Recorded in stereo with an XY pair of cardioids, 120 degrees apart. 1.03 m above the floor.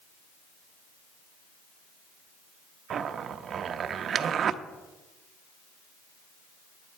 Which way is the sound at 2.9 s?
45° right.